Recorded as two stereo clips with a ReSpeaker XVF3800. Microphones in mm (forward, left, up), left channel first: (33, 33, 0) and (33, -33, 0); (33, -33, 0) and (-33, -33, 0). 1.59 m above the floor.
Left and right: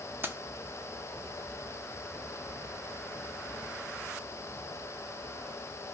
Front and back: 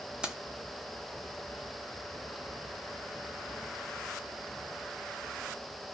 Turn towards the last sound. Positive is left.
turn(degrees=-110)